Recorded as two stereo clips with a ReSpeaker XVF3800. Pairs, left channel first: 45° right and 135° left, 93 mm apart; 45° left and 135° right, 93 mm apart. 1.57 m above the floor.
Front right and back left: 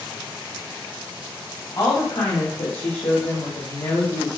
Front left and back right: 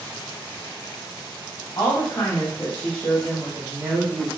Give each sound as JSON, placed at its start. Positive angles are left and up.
{"t": 1.8, "sound": "a woman speaking", "azimuth_deg": -5, "distance_m": 1.3}